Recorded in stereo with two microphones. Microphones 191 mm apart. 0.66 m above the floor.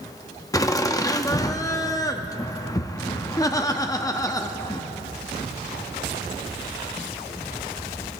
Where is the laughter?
20° left (ahead or behind), 0.6 m.